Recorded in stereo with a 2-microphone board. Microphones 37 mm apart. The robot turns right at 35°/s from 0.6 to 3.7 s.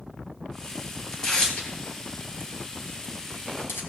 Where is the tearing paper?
10° left (ahead or behind), 1.9 m; by 3.8 s 80° left, 1.9 m.